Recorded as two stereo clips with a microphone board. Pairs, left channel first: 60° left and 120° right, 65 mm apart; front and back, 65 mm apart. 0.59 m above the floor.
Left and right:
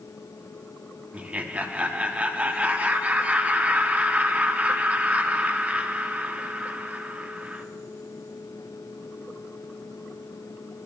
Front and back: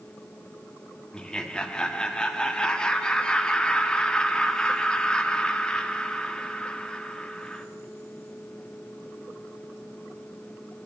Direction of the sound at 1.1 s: 65° right.